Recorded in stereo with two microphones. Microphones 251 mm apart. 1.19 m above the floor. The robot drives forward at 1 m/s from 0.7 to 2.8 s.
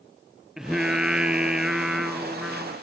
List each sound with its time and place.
0.6 s singing: centre (ahead or behind), 0.7 m